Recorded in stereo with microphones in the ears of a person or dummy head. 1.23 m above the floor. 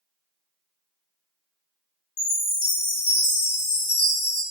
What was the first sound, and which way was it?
A chime, 25° left (ahead or behind).